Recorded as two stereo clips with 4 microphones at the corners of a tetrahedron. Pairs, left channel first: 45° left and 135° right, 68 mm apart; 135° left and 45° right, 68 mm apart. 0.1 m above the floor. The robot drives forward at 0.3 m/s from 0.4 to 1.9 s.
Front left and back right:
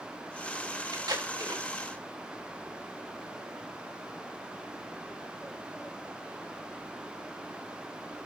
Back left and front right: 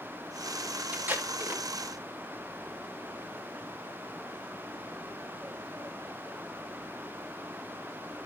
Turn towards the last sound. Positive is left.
turn(degrees=-105)